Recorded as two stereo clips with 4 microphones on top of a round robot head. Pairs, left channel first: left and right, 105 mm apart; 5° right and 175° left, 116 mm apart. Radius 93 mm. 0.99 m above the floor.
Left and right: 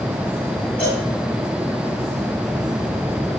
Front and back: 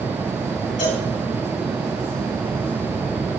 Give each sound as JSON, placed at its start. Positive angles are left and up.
{"t": 0.8, "sound": "a cowbell", "azimuth_deg": 10, "distance_m": 3.0}